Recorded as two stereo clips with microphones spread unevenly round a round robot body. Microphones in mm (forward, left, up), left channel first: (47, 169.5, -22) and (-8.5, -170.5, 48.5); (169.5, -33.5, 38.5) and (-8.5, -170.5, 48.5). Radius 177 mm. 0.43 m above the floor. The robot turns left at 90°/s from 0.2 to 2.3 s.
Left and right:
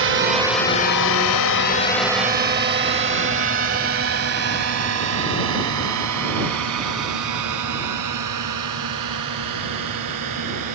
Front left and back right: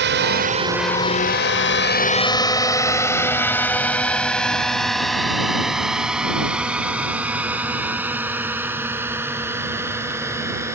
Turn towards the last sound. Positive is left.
turn(degrees=-65)